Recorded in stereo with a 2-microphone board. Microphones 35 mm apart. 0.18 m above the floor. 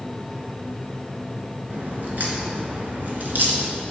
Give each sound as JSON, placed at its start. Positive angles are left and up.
{"t": 1.7, "sound": "a crack", "side_deg": -60, "distance_m": 2.5}